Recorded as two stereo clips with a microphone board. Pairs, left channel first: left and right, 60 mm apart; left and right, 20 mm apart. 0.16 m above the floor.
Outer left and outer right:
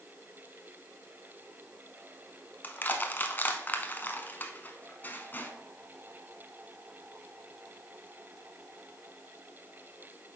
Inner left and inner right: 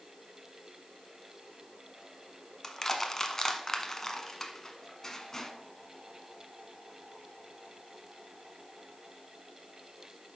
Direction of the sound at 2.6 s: 30° left (ahead or behind).